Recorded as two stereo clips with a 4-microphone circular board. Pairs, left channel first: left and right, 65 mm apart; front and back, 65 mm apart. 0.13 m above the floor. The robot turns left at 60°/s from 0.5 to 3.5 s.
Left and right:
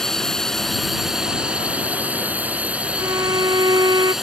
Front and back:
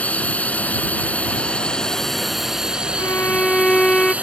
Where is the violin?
50° right; by 4.1 s 80° right.